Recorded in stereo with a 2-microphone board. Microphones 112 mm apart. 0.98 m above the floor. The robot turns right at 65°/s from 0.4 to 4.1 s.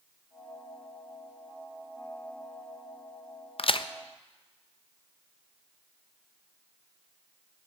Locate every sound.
3.6 s a crack: 60° left (ahead or behind), 0.5 m; by 3.9 s 45° left (ahead or behind), 0.5 m